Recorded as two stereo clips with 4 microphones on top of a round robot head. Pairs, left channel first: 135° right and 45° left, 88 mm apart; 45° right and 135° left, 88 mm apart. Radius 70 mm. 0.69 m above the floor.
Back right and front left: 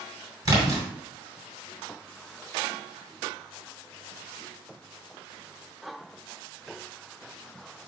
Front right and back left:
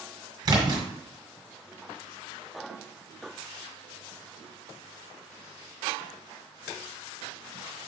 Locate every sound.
0.5 s a splash: 95° left, 2 m